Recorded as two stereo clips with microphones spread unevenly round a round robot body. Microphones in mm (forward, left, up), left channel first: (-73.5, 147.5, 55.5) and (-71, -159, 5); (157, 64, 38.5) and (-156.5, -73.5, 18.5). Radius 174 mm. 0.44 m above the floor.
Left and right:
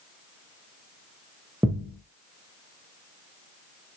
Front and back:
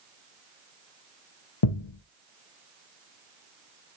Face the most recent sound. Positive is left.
turn(degrees=0)